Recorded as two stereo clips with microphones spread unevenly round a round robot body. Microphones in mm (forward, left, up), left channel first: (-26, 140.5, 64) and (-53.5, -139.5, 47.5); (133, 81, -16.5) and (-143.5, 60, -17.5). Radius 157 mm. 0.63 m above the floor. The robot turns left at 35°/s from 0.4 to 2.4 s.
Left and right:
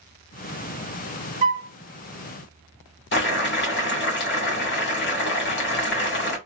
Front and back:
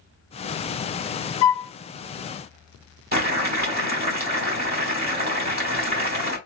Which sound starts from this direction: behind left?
Boiling, at 3.1 s.